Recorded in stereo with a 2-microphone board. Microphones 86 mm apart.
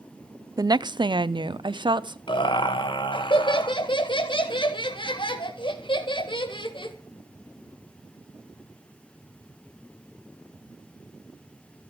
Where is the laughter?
70° left (ahead or behind), 1.9 m.